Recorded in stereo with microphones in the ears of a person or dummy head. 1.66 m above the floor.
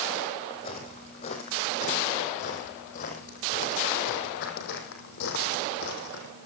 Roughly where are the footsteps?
Left.